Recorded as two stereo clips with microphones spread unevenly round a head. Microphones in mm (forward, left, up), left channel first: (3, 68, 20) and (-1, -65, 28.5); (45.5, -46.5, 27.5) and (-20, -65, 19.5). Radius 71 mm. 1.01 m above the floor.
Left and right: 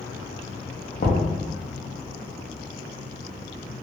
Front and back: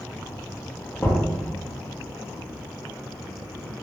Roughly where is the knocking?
Left.